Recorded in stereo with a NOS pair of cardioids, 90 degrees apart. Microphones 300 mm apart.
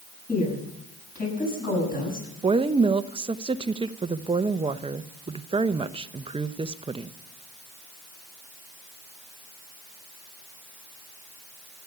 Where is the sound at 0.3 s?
30° left, 8.5 m.